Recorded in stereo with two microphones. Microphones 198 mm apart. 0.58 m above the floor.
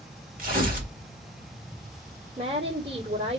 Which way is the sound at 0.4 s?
45° right (ahead or behind).